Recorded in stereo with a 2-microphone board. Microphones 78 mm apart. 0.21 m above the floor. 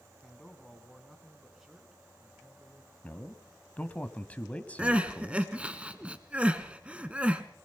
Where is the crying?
15° right (ahead or behind), 1.2 m.